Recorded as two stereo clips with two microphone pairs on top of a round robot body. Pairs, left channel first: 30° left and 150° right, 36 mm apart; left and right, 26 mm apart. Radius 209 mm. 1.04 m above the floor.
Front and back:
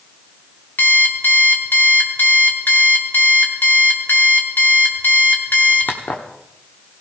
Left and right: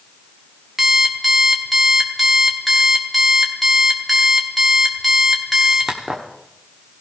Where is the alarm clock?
5° right, 1.0 m.